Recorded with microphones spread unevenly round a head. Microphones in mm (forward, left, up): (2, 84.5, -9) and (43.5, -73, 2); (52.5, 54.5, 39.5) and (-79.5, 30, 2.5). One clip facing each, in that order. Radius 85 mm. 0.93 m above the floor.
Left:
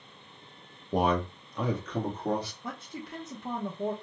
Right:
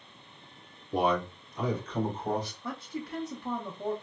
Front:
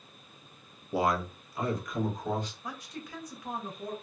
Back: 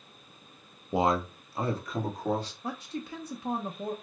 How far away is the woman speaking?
About 0.6 m.